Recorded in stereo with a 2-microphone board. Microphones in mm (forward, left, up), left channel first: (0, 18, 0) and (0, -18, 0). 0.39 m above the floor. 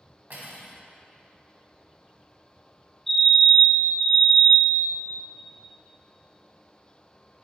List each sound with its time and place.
0.3 s cutlery clinking: 70° right (ahead or behind), 1.3 m
3.1 s a fire alarm: 5° left (ahead or behind), 1.9 m